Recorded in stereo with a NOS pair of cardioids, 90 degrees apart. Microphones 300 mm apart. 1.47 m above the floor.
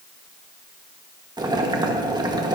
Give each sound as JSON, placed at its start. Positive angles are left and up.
{"t": 1.4, "sound": "boiling", "azimuth_deg": -15, "distance_m": 1.6}